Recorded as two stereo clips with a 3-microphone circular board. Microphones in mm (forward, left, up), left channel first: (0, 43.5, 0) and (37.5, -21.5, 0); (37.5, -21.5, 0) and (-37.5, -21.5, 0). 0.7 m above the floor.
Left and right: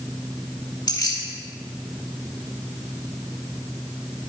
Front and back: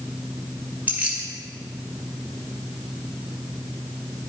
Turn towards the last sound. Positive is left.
turn(degrees=115)